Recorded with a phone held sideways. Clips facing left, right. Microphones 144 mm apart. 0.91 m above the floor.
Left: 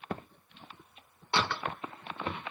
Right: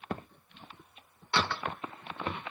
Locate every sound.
1.3 s a door slam: 25° left (ahead or behind), 2.5 m